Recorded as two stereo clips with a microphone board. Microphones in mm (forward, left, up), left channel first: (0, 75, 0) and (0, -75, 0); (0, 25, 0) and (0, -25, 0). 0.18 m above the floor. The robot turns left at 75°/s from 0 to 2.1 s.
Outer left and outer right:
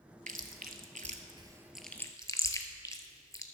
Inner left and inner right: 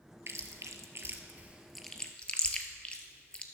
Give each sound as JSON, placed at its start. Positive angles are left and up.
{"t": 0.3, "sound": "chewing", "side_deg": -60, "distance_m": 0.8}